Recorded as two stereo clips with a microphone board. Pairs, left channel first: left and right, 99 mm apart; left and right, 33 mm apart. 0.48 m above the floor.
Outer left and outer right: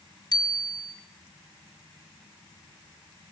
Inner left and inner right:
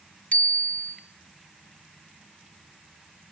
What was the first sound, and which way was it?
A bicycle bell, 45° left (ahead or behind).